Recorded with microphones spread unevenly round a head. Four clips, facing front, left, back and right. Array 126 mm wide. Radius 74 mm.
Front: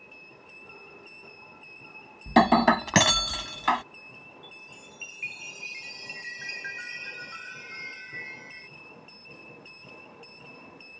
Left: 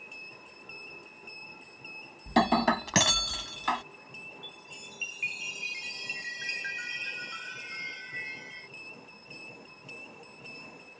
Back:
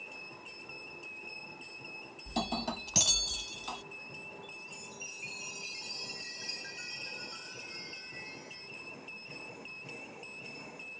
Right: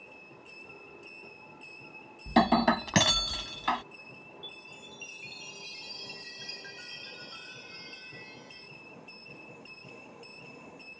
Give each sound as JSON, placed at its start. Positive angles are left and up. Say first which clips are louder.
{"t": 2.3, "sound": "breaking glass", "louder": "right 1 dB, front 17 dB", "azimuth_deg": 25}
{"t": 4.4, "sound": "a chime", "louder": "even, even", "azimuth_deg": 60}